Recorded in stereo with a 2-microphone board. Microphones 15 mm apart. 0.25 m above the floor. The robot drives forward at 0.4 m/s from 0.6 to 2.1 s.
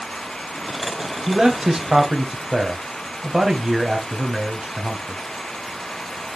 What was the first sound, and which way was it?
A man speaking, 35° right (ahead or behind).